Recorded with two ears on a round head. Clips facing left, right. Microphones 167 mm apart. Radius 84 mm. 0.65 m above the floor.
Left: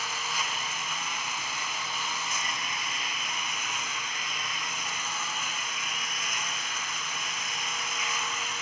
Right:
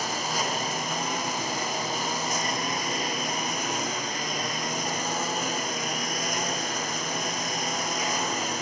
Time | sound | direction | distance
0.0 | a lawn mower | 35° right (ahead or behind) | ?